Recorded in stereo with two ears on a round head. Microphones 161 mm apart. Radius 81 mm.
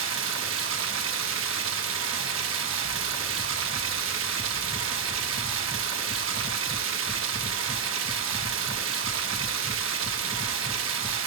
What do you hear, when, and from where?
0.0 s running water: 80° right, 1.2 m